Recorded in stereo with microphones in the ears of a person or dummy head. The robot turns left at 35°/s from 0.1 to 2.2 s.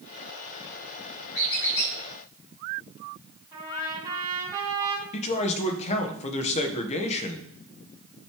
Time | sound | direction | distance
1.3 | a squeak | 80° left | 5.5 m
3.5 | a trumpet | 20° right (ahead or behind) | 4 m
5.1 | a man speaking | 40° left (ahead or behind) | 1.3 m